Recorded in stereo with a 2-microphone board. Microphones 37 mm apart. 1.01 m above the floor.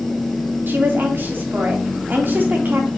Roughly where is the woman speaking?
Right.